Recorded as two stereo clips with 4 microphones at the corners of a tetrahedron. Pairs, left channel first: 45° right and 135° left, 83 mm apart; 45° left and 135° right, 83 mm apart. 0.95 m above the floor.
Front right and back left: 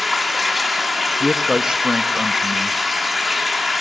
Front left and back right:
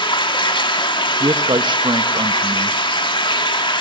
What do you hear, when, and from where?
0.0 s running water: 45° left, 1.7 m
1.2 s a man speaking: 145° right, 0.8 m